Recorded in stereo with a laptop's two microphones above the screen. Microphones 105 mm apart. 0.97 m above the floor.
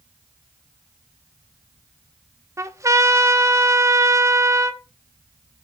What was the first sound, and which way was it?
A trumpet, 30° right (ahead or behind).